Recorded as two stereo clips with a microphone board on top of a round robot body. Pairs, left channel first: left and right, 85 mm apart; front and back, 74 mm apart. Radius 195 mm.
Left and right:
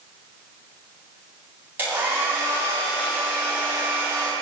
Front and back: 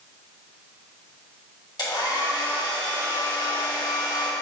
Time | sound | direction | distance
1.8 | a hair dryer | 20° right | 2 m